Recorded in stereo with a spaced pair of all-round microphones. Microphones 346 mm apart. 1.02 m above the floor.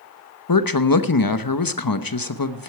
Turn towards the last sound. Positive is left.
turn(degrees=75)  # may be behind; listen again after turning